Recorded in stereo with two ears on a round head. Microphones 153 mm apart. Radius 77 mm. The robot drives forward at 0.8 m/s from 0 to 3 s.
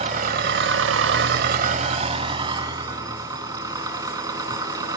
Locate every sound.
0.0 s an engine running: 40° right (ahead or behind), 1.0 m; by 5.0 s 20° right (ahead or behind), 1.8 m